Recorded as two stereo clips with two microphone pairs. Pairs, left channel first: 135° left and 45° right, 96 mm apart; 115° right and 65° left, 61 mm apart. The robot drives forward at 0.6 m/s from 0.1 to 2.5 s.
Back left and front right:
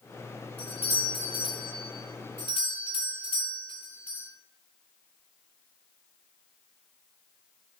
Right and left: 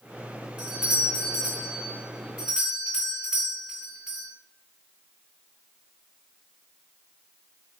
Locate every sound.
0.6 s a doorbell: 135° left, 6.5 m; by 4.3 s 140° left, 7.5 m